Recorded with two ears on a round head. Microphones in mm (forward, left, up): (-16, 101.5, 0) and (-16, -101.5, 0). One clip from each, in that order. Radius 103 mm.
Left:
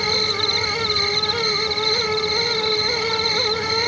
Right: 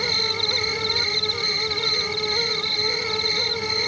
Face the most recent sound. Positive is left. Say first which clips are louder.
# left 2 dB
turn(degrees=5)  # may be behind; listen again after turning